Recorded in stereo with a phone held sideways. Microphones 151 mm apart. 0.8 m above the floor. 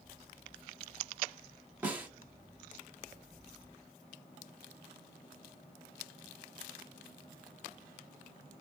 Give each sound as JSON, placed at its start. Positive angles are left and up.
{"t": 1.8, "sound": "a snare drum", "side_deg": -10, "distance_m": 1.1}